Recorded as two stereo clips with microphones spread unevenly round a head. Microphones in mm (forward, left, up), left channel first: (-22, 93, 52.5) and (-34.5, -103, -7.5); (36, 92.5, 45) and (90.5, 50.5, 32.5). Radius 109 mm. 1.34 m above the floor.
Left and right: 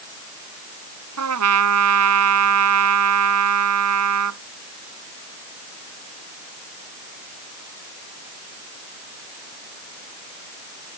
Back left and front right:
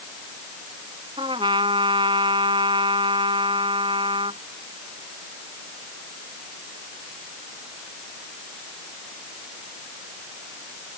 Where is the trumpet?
95° right.